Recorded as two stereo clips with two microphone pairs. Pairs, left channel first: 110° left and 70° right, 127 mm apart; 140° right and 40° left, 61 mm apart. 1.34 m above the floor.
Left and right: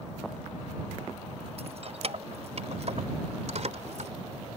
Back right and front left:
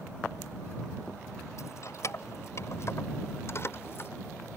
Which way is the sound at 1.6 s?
105° right.